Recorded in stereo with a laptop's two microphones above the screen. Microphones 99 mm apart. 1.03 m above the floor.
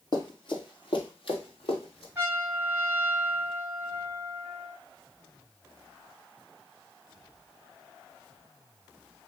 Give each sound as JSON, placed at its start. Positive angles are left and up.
{"t": 0.1, "sound": "running footsteps", "side_deg": 50, "distance_m": 1.4}
{"t": 2.1, "sound": "a trumpet", "side_deg": -25, "distance_m": 1.2}